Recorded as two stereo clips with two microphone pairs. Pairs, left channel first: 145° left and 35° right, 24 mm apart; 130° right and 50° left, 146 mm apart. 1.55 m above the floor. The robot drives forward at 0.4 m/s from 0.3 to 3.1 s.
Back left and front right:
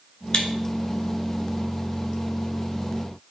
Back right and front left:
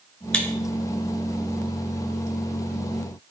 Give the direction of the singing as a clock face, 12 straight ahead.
No singing in this recording.